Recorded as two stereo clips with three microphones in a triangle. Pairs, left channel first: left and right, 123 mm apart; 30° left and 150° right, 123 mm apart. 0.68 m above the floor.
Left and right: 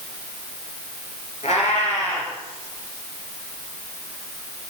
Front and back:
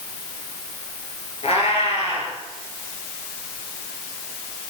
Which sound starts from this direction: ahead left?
A cat meowing, at 1.4 s.